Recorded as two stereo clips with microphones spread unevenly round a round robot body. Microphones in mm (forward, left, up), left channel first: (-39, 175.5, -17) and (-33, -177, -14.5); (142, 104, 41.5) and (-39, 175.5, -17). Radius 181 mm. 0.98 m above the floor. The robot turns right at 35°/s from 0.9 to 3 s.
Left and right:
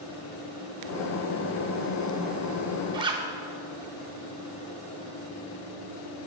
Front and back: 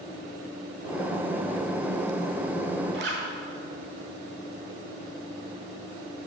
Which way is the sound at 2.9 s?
165° right.